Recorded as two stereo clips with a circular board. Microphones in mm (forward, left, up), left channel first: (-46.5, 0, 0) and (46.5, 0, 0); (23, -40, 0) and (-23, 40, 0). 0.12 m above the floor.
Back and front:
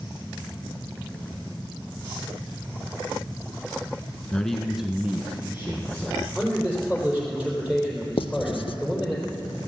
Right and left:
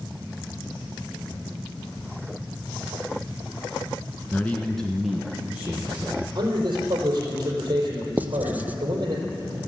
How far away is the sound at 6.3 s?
About 3.5 m.